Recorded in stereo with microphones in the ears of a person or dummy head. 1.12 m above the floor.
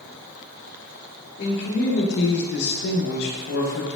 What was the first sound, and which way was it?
A man speaking, 60° left (ahead or behind).